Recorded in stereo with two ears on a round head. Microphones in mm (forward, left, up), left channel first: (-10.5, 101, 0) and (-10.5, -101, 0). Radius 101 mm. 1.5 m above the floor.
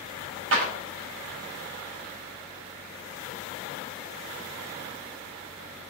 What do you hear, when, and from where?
0.5 s a clap: 65° right (ahead or behind), 5 m